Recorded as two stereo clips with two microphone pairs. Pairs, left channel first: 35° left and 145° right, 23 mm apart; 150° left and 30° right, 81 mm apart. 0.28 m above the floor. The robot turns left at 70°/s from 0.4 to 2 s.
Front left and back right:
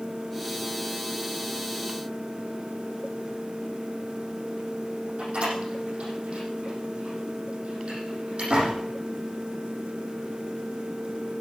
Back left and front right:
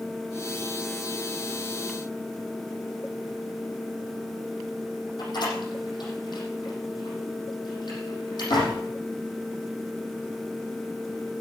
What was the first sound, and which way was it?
A door slam, straight behind.